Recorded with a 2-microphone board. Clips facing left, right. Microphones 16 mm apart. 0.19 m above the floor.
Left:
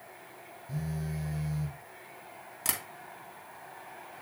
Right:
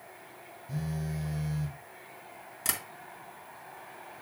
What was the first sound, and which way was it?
A phone buzzing, centre (ahead or behind).